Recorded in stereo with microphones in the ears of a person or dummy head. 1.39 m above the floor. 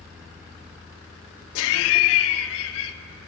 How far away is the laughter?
About 0.6 m.